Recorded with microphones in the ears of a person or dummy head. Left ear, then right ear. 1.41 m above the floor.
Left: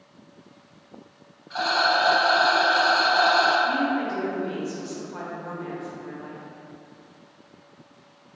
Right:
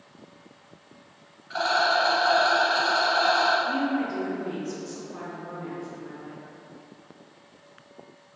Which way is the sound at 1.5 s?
20° right (ahead or behind).